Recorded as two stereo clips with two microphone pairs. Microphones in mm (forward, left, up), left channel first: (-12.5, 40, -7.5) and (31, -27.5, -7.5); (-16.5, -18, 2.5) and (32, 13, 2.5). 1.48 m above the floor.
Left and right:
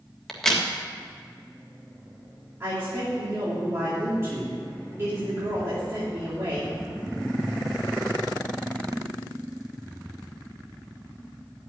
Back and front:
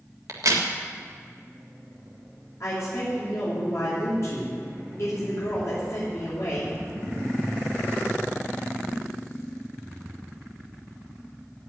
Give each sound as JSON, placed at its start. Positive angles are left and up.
{"t": 0.3, "sound": "a crack", "azimuth_deg": 40, "distance_m": 1.8}
{"t": 2.6, "sound": "a woman speaking", "azimuth_deg": -115, "distance_m": 3.5}